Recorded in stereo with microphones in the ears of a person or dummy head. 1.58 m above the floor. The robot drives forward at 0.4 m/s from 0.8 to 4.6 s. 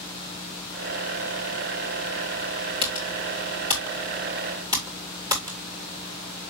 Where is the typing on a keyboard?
20° right (ahead or behind), 2.5 m; by 5.6 s 15° right (ahead or behind), 3 m.